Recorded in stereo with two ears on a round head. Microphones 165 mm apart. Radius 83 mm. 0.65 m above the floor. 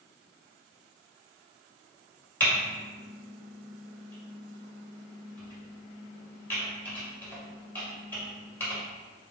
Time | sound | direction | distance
2.4 | typing on a keyboard | 10° left (ahead or behind) | 1.9 m